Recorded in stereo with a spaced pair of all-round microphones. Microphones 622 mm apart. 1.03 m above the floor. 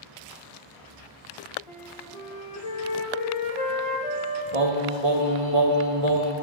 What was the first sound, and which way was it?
A flute, 60° left (ahead or behind).